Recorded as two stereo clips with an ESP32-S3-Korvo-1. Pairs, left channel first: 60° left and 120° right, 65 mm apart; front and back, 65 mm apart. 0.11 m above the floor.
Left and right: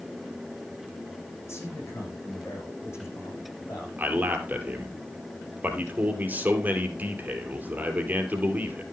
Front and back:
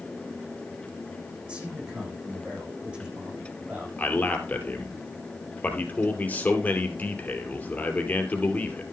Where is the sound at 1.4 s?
110° left, 7.5 m.